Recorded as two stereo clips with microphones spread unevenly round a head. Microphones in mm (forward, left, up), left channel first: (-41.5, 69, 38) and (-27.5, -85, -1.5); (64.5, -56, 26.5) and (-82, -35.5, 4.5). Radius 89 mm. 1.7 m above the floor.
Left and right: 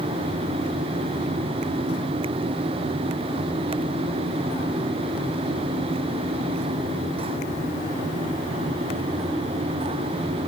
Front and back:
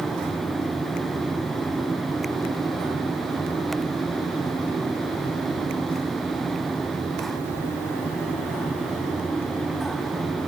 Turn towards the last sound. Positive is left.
No sound to turn to.